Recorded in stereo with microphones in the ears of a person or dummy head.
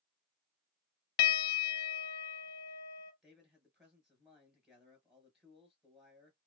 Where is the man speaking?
Centre (ahead or behind), 1.1 m.